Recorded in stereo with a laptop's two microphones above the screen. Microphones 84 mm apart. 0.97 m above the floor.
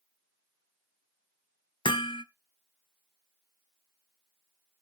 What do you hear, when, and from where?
1.9 s hammering: 75° left (ahead or behind), 0.5 m